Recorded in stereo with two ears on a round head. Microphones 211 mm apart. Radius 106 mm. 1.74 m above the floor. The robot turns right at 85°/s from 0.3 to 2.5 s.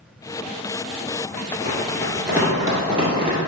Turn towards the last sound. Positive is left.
turn(degrees=-25)  # may be behind; listen again after turning